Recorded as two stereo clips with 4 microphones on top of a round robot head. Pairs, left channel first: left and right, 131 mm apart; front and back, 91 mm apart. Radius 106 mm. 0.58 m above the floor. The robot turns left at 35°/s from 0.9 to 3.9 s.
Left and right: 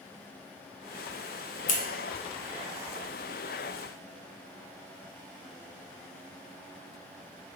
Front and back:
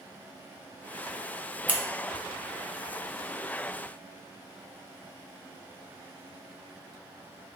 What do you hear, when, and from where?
1.7 s scissors: 105° left, 0.6 m; by 1.8 s 100° left, 0.6 m